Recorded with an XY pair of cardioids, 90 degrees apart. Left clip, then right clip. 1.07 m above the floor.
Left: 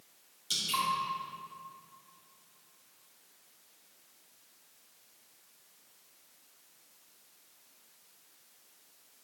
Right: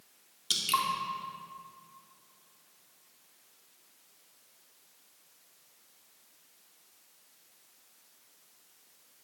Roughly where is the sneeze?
No sneeze in this recording.